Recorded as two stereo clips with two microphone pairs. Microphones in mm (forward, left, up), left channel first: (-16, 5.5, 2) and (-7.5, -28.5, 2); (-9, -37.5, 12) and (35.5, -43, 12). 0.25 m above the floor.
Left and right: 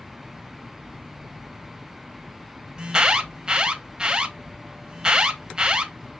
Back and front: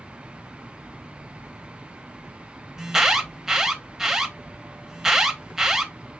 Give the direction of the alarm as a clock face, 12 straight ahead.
2 o'clock.